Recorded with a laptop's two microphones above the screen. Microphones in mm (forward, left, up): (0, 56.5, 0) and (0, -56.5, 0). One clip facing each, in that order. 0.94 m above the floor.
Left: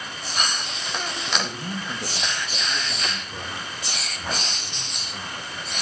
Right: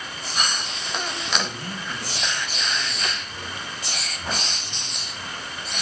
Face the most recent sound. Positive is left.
turn(degrees=60)  # may be behind; listen again after turning